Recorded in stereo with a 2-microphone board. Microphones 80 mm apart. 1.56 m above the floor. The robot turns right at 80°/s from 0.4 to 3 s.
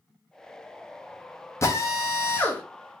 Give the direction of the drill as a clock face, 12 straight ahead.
10 o'clock.